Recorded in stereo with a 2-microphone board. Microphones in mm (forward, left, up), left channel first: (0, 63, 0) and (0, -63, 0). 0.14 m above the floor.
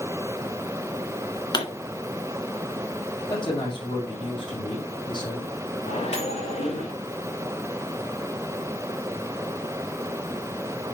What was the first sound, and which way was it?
A pop, 35° left (ahead or behind).